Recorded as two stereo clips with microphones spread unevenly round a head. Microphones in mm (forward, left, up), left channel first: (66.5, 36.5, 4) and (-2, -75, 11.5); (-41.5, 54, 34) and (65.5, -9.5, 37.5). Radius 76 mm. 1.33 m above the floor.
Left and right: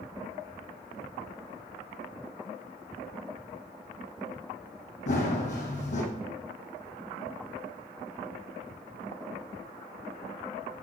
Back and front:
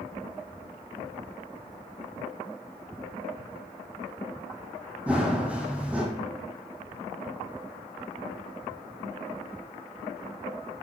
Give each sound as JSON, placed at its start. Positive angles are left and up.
{"t": 5.1, "sound": "running footsteps", "azimuth_deg": 45, "distance_m": 2.5}